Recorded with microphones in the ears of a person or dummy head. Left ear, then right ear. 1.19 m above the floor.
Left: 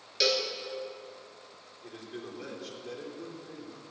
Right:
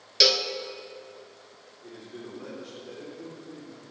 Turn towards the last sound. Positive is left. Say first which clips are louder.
# even
turn(degrees=75)  # may be behind; listen again after turning